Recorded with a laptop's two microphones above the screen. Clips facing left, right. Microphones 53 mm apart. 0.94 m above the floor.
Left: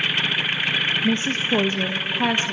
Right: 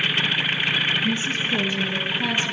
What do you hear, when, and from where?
1.0 s a woman speaking: 50° left (ahead or behind), 1.2 m; by 2.5 s 45° left (ahead or behind), 2 m